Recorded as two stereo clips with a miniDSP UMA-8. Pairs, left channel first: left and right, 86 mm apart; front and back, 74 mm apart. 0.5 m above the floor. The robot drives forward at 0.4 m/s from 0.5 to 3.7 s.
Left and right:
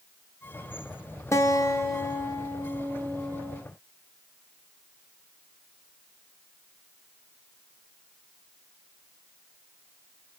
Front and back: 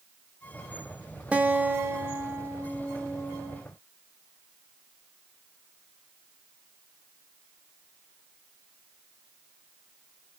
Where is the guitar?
120° left, 1.0 m; by 3.6 s 155° left, 1.6 m.